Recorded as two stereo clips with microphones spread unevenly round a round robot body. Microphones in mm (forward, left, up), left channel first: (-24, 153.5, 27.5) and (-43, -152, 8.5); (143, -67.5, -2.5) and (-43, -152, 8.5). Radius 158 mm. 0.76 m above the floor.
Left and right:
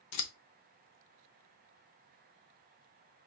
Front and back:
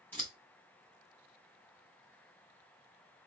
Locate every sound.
0.1 s scissors: 110° left, 0.6 m